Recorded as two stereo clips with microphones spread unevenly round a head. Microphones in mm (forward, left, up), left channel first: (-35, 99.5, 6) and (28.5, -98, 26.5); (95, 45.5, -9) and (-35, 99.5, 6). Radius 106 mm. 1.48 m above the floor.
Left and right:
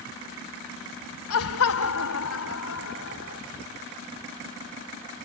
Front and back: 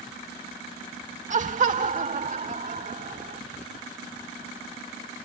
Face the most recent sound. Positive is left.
turn(degrees=130)